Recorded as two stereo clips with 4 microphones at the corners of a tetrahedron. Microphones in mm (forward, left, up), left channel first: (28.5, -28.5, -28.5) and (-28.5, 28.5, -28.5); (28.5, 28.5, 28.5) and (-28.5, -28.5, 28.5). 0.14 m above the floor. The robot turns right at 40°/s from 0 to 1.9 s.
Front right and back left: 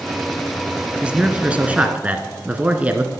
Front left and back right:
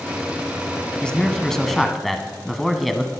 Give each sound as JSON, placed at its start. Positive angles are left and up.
{"t": 1.0, "sound": "a man speaking", "azimuth_deg": 95, "distance_m": 1.1}